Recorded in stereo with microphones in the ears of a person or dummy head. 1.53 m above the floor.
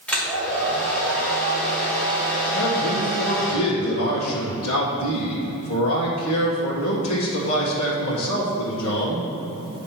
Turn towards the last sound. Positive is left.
turn(degrees=85)